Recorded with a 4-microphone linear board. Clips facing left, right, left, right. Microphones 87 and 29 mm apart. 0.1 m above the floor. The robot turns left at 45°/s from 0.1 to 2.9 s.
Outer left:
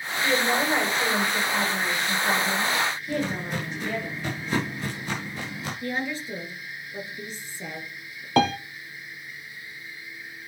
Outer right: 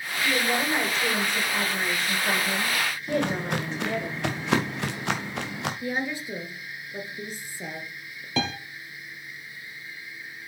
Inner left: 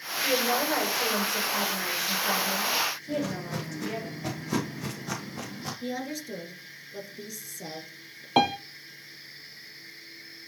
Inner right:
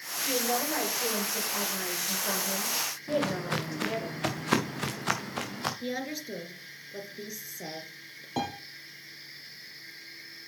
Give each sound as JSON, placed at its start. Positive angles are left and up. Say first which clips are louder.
{"t": 0.2, "sound": "a woman speaking", "louder": "outer left 2 dB, inner left 4 dB", "azimuth_deg": 85, "distance_m": 6.0}
{"t": 3.1, "sound": "footsteps", "louder": "outer right 2 dB, inner right 2 dB", "side_deg": -65, "distance_m": 2.0}
{"t": 5.8, "sound": "a woman speaking", "louder": "outer left 2 dB, inner left 1 dB", "side_deg": -15, "distance_m": 1.9}
{"t": 8.4, "sound": "a piano", "louder": "outer left 8 dB, inner left 10 dB", "side_deg": 60, "distance_m": 0.6}